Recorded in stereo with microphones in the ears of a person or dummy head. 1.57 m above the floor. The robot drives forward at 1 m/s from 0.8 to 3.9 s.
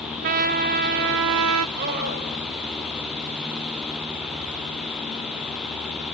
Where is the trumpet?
50° right (ahead or behind), 1.3 m; by 1.7 s 90° right, 1.0 m.